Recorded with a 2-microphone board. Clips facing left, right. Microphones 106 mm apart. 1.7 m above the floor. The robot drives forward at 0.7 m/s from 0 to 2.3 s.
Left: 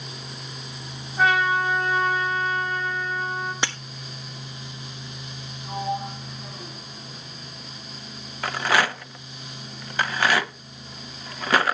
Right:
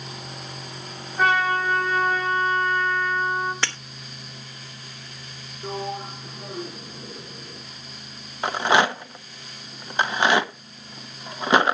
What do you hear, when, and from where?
1.2 s a trumpet: centre (ahead or behind), 6 m
3.6 s breaking glass: 15° left (ahead or behind), 1.2 m
5.6 s a sliding door: 65° right (ahead or behind), 3 m
8.4 s a rattle: 20° right (ahead or behind), 0.7 m